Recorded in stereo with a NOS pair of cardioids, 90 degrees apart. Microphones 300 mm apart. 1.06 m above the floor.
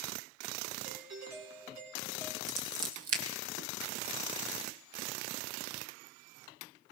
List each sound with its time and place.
0.8 s a doorbell: 65° right, 4 m
2.5 s scissors: 55° right, 2.5 m